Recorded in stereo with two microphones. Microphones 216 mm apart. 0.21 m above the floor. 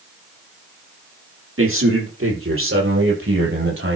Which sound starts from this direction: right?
A man speaking, at 1.6 s.